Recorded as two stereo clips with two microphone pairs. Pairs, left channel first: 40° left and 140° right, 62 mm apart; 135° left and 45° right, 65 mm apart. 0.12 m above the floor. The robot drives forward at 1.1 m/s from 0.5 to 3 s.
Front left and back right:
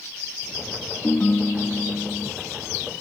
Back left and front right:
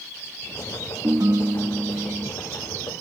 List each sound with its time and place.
1.0 s a ringtone: 15° right; by 2.3 s 45° right